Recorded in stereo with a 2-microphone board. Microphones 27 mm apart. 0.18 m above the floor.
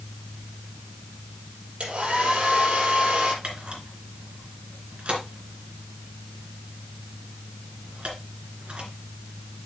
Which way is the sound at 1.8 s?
45° right (ahead or behind).